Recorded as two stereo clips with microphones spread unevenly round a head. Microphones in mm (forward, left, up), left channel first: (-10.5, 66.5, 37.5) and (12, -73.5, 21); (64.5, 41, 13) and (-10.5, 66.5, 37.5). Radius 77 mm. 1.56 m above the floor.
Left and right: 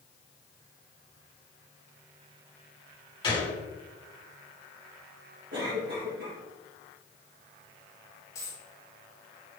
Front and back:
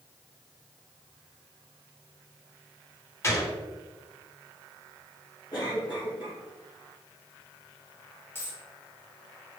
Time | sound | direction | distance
3.2 | a gunshot | 35° left | 3 m
5.5 | a cough | 65° right | 2.5 m
8.3 | a dropped coin | 55° left | 1.4 m